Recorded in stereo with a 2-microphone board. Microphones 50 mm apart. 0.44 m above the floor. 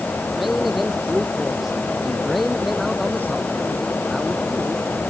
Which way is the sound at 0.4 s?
5° right (ahead or behind).